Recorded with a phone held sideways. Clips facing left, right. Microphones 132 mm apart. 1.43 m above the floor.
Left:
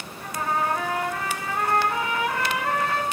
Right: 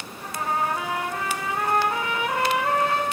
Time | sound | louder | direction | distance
0.2 | a trumpet | even | 20° right (ahead or behind) | 3.5 m